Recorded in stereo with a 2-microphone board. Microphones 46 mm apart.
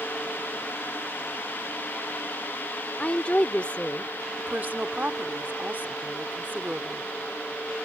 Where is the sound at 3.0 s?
30° left (ahead or behind).